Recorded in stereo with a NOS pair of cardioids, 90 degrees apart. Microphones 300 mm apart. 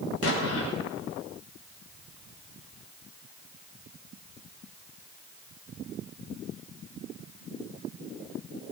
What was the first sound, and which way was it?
An explosion, 55° left.